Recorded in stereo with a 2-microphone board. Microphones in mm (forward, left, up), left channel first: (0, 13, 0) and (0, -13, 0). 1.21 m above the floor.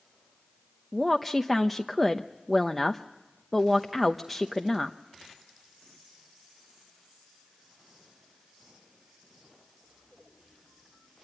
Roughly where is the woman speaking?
Centre.